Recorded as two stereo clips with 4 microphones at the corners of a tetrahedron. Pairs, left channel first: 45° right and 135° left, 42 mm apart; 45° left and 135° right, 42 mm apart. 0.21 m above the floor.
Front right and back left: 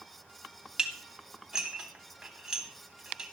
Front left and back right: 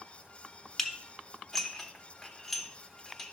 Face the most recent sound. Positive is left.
turn(degrees=120)